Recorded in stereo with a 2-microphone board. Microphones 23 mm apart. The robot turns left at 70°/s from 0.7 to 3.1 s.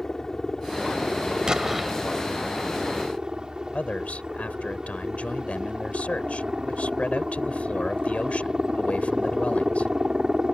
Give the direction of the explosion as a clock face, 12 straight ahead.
5 o'clock.